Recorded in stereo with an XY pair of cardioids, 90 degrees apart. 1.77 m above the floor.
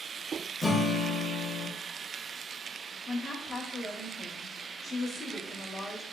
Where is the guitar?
25° left, 0.6 m.